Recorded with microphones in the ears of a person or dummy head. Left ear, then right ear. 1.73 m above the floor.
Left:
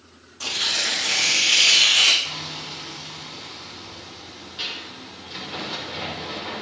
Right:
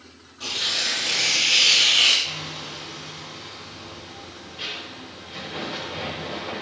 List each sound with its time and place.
0.4 s tearing paper: 50° left (ahead or behind), 3.5 m
2.2 s hammering: 50° left (ahead or behind), 5.5 m